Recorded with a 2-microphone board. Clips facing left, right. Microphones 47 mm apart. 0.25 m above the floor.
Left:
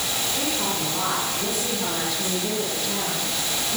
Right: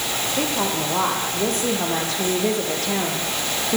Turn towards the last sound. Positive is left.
turn(degrees=-75)  # may be behind; listen again after turning